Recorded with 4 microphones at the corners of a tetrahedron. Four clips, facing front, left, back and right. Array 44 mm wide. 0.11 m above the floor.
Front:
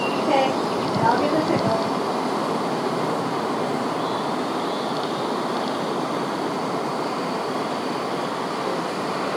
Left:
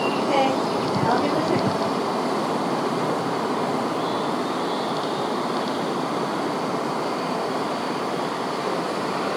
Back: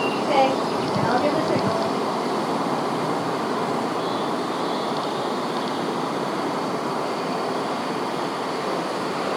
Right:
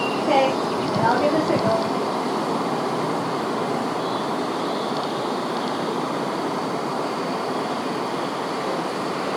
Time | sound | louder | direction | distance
0.3 | a woman speaking | right 4 dB, back 1 dB | 60° right | 7 m